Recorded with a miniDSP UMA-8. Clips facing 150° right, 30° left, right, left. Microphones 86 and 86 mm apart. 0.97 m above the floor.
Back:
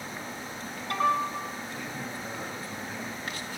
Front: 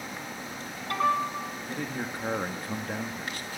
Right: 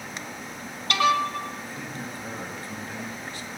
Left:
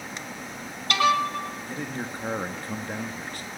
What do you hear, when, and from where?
1.7 s a man speaking: 60° left, 1.9 m